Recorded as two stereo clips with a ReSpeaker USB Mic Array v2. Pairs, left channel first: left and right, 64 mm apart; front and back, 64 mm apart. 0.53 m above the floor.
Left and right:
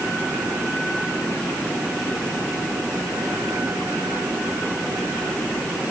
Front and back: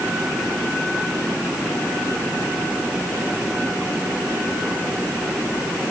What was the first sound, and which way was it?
Only background noise.